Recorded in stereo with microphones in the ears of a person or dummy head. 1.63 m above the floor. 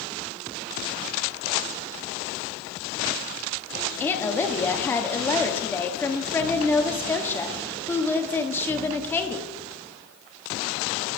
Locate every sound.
4.0 s a woman speaking: 15° left (ahead or behind), 1.0 m